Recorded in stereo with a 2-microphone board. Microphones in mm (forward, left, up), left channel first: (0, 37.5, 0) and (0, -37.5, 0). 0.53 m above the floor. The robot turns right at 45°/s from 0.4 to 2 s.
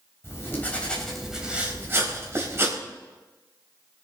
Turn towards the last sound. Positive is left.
turn(degrees=-145)